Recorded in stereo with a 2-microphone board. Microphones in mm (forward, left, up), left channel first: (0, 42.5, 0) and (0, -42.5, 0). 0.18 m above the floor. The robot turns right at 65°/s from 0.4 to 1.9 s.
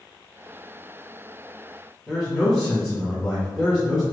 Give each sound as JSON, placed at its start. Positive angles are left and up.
{"t": 2.1, "sound": "a man speaking", "side_deg": -5, "distance_m": 1.5}